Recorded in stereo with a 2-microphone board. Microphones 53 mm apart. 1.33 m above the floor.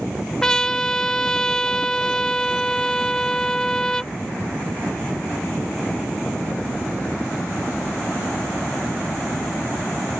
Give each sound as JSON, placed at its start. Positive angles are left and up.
{"t": 0.4, "sound": "a trumpet", "side_deg": 10}